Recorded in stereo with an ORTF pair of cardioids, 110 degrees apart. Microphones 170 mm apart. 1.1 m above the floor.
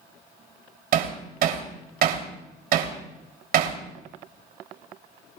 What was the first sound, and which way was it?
Hammering, 60° right.